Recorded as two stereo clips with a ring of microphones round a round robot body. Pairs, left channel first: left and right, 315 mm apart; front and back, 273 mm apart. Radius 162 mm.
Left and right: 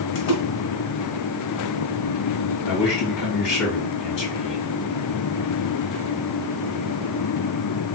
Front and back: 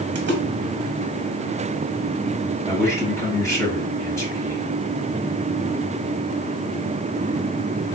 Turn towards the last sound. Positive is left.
turn(degrees=80)